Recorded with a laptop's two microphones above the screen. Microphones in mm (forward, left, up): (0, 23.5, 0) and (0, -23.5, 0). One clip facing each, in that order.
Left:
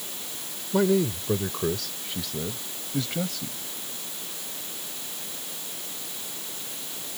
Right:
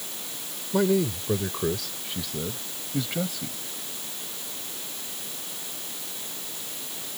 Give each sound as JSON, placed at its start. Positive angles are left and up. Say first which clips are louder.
{"t": 0.7, "sound": "a man speaking", "louder": "left 1 dB", "side_deg": 0}